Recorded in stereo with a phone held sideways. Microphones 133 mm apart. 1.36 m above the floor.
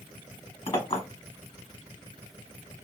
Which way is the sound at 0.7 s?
40° left (ahead or behind).